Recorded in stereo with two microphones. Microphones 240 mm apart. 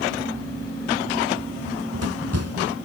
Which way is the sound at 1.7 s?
70° right (ahead or behind).